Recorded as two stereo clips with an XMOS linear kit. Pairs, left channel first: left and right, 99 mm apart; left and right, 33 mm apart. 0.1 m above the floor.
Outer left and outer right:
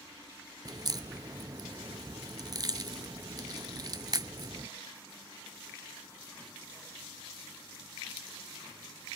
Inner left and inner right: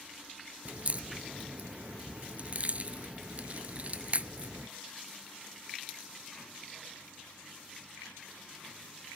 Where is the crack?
40° right (ahead or behind), 0.6 m.